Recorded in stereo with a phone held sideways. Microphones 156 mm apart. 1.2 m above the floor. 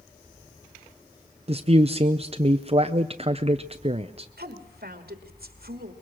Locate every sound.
1.5 s a man speaking: 40° right (ahead or behind), 0.6 m
4.4 s a woman speaking: 85° right, 2.5 m